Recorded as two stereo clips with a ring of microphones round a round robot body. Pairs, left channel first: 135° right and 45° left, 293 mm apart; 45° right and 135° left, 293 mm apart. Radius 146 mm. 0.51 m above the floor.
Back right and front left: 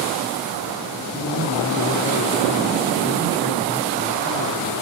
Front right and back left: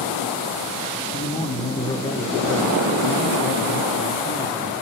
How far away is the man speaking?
About 1.5 m.